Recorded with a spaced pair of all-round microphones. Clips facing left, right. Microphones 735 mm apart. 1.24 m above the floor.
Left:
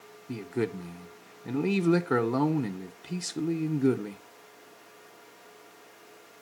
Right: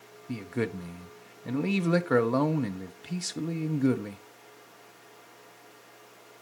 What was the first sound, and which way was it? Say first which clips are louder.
A man speaking: left 1 dB; 10° right (ahead or behind).